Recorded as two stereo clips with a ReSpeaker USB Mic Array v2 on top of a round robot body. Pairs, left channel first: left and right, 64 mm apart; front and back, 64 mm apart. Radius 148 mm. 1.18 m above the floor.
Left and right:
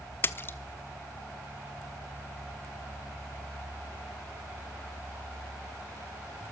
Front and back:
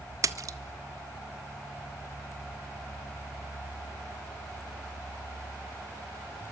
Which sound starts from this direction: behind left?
A splash, at 0.2 s.